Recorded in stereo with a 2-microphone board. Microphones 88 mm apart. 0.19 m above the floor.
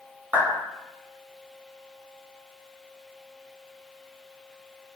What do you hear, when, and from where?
0.3 s a clap: 20° right (ahead or behind), 1.4 m